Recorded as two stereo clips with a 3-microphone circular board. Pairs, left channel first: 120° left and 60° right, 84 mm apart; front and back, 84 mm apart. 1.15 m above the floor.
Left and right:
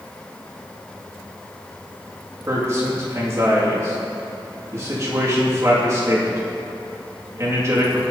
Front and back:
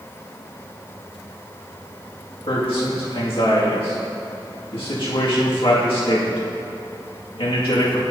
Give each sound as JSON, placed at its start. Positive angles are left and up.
{"t": 2.5, "sound": "a man speaking", "azimuth_deg": -5, "distance_m": 2.0}